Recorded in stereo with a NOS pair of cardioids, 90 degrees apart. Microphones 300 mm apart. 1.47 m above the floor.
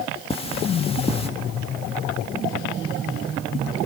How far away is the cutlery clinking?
About 1.6 m.